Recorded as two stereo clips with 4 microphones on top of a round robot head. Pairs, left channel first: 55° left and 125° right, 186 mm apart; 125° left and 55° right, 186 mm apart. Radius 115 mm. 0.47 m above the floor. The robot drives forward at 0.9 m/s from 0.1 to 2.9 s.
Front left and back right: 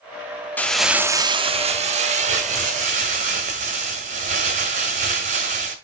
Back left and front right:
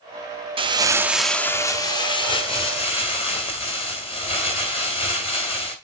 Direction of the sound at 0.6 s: 20° right.